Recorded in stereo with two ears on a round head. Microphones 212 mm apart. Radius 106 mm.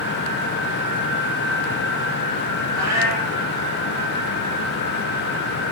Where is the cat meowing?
80° right, 10 m.